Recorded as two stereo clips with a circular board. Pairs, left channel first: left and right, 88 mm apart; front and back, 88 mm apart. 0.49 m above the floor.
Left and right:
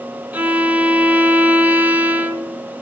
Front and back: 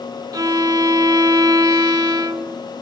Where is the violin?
155° right, 0.8 m.